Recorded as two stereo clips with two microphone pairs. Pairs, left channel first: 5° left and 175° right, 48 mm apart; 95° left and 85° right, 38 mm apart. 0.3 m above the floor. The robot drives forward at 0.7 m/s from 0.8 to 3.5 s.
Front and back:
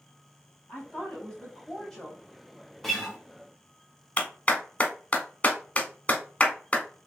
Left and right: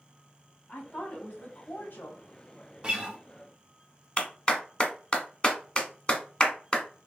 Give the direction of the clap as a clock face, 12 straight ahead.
10 o'clock.